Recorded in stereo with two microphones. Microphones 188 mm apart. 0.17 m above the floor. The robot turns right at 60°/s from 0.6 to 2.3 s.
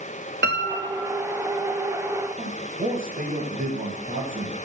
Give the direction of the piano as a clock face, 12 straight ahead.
4 o'clock.